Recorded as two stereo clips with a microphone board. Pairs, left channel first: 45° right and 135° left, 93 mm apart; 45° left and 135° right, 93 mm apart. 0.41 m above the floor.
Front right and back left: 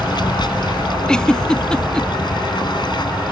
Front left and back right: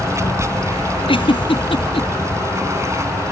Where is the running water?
80° right.